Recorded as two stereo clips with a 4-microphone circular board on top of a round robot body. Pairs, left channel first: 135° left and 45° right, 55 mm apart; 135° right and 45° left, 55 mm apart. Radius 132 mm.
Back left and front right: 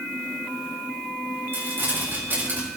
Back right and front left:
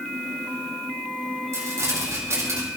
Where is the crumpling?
5° left, 5 m.